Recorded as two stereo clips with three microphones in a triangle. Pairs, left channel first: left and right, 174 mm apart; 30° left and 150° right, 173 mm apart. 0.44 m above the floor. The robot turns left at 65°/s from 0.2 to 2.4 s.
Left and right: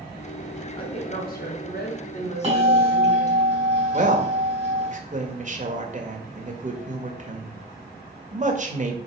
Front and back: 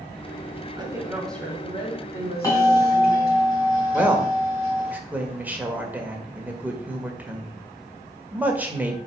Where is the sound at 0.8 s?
150° left, 3 m; by 3.4 s 45° left, 3 m.